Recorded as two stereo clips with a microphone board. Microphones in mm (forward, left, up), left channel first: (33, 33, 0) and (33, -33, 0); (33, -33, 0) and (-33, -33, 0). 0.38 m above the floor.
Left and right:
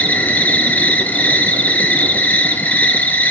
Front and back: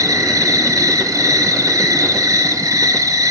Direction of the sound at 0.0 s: 155° left.